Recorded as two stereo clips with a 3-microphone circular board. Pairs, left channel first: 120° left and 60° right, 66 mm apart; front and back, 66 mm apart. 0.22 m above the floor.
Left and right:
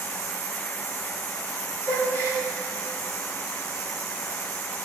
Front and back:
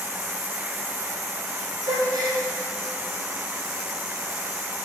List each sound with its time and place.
1.8 s a gasp: straight behind, 4 m